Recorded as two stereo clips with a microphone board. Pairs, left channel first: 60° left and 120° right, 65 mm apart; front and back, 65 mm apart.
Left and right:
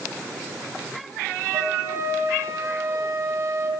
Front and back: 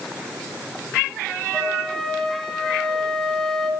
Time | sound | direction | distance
1.5 | a flute | 80° right | 1.3 m